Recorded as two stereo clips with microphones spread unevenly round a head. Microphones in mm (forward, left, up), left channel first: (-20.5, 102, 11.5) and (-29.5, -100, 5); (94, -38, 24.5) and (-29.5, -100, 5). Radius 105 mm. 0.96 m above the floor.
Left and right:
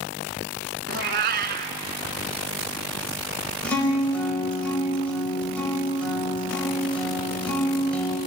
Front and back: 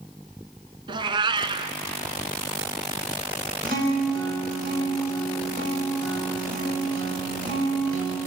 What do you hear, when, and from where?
0.9 s a cat meowing: 105° right, 1.2 m
3.6 s a guitar: 170° left, 5 m